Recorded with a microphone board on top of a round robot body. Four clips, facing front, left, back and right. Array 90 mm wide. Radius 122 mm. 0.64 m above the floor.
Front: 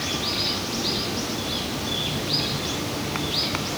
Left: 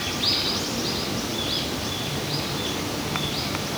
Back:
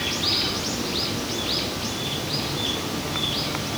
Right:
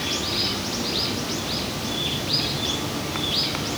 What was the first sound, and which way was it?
Only background noise.